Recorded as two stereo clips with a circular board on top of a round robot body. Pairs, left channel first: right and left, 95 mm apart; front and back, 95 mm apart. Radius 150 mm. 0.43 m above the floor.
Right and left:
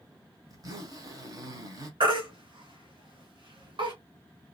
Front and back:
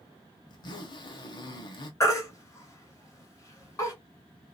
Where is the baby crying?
60° left, 2 m.